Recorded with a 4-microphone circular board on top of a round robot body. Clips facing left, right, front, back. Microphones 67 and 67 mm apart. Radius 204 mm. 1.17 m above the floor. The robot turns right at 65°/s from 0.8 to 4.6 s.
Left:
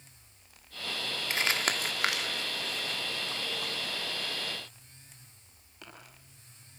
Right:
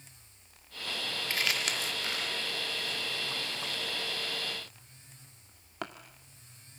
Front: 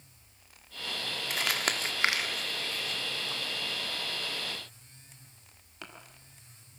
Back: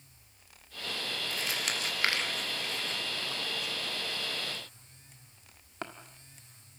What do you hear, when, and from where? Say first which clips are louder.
1.3 s crumpling: left 3 dB, front 6 dB; 20° left, 1.3 m; by 5.8 s 125° right, 1.3 m